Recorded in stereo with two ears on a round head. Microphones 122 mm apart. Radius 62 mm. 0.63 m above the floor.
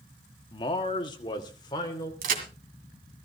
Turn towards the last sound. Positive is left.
turn(degrees=-70)  # may be behind; listen again after turning